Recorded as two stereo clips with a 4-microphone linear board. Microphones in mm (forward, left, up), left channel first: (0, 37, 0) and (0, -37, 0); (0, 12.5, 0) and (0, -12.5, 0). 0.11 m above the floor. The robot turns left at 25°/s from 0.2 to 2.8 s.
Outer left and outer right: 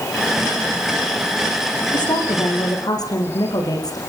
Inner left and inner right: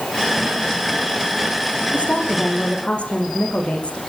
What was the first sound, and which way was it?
A woman speaking, 80° left.